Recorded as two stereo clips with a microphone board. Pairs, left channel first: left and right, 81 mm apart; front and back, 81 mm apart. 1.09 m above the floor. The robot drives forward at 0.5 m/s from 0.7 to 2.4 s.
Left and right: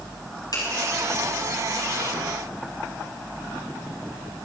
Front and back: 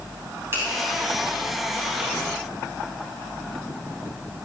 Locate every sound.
0.5 s a finger snap: 125° left, 6.5 m